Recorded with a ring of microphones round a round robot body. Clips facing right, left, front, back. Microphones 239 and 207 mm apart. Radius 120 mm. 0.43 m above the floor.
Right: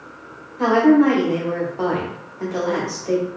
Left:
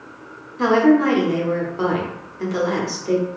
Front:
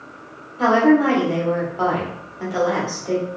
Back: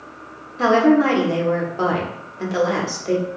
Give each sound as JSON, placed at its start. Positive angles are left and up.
{"t": 0.6, "sound": "a woman speaking", "azimuth_deg": 140, "distance_m": 1.0}